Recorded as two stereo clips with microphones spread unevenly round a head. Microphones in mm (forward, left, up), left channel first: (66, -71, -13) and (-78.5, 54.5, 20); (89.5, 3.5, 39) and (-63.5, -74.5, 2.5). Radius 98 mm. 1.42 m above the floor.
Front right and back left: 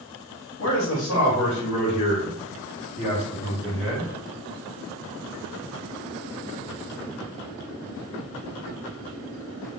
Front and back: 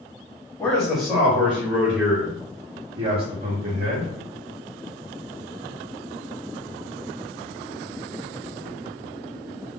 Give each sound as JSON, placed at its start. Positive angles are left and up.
{"t": 0.6, "sound": "a man speaking", "azimuth_deg": -45, "distance_m": 1.6}